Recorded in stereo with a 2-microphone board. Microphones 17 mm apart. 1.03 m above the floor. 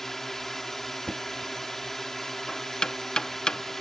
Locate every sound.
0.0 s a drone: 15° left (ahead or behind)
1.1 s knocking: 65° left (ahead or behind)